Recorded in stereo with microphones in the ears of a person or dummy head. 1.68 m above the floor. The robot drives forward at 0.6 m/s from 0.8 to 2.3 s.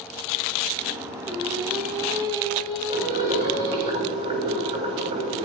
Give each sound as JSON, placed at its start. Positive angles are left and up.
{"t": 1.2, "sound": "singing", "side_deg": -20, "distance_m": 5.5}
{"t": 2.9, "sound": "boiling", "side_deg": -30, "distance_m": 9.0}